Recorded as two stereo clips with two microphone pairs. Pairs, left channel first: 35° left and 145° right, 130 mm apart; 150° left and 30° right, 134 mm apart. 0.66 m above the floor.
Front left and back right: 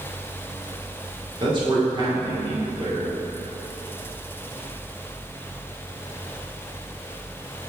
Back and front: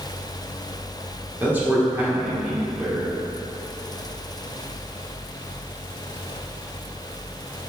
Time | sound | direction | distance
1.4 | a man speaking | 100° right | 2 m